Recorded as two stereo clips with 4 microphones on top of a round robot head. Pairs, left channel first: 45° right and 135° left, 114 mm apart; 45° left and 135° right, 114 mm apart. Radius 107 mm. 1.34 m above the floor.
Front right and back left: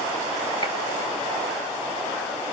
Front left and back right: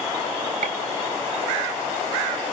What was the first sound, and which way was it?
A gunshot, 105° right.